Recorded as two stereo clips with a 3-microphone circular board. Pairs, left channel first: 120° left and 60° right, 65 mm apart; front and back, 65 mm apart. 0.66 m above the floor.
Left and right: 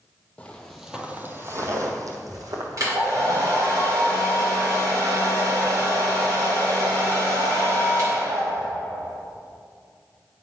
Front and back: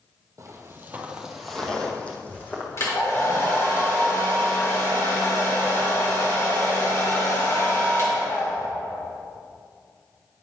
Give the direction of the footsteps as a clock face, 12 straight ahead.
6 o'clock.